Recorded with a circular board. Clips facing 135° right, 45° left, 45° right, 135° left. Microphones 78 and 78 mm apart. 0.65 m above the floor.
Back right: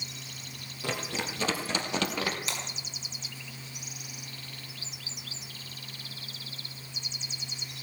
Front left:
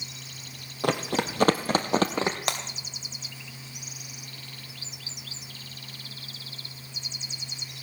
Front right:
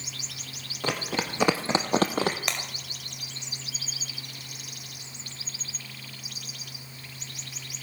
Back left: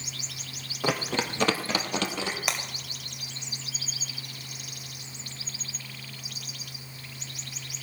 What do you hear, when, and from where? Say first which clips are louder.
0.8 s running footsteps: front left 8 dB, back left 2 dB; 55° left, 1.6 m; by 2.4 s 15° right, 1.4 m
2.5 s breaking glass: front left 6 dB, back left 1 dB; 50° left, 2 m